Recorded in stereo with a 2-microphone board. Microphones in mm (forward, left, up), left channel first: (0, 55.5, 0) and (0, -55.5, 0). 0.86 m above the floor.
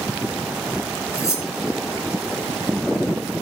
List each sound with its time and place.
1.1 s cutlery clinking: 30° left (ahead or behind), 6 m